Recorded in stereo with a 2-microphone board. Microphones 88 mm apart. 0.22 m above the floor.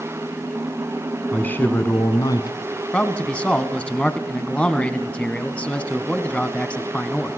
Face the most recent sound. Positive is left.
turn(degrees=15)  # may be behind; listen again after turning